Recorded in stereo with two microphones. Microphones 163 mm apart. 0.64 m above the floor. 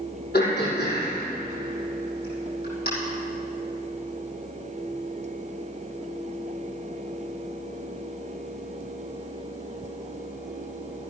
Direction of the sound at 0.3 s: 70° left (ahead or behind).